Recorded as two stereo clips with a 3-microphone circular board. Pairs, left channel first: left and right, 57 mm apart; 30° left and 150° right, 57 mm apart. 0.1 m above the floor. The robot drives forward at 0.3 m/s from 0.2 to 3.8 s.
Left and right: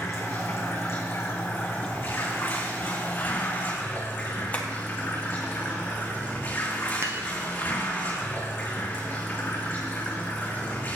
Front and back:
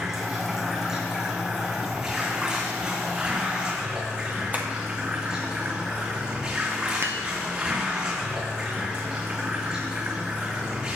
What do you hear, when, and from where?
0.0 s running water: 130° left, 3 m; by 11.0 s 140° left, 4 m
4.5 s tapping: 155° left, 1.7 m
7.0 s dishes clattering: 115° right, 1.3 m